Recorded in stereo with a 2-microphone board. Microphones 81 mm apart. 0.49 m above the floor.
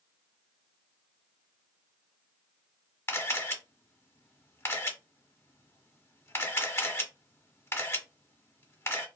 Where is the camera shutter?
30° left (ahead or behind), 1.0 m.